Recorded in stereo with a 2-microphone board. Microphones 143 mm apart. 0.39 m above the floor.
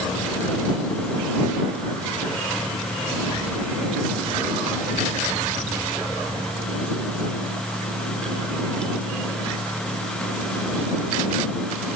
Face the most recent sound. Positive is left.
No sound to turn to.